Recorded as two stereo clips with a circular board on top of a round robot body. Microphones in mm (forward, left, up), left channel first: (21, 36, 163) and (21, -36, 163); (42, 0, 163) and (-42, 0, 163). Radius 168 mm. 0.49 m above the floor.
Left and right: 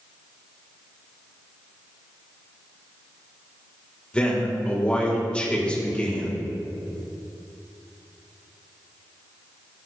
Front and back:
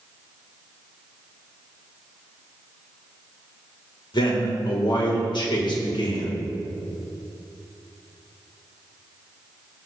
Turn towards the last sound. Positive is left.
turn(degrees=15)